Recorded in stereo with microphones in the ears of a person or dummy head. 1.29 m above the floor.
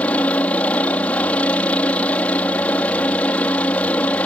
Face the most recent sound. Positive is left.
turn(degrees=5)  # may be behind; listen again after turning